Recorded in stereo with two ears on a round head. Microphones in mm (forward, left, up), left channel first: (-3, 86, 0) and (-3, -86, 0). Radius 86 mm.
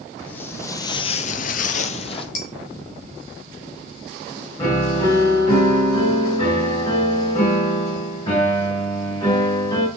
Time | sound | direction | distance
0.3 | footsteps | 10° left (ahead or behind) | 1.4 m
2.4 | dishes clattering | 35° left (ahead or behind) | 3.5 m
4.6 | a piano | 20° left (ahead or behind) | 5 m